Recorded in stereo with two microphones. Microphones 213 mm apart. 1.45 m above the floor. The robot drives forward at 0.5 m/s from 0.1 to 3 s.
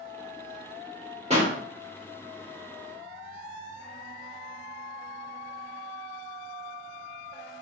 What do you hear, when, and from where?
1.3 s a pop: 30° right (ahead or behind), 1.8 m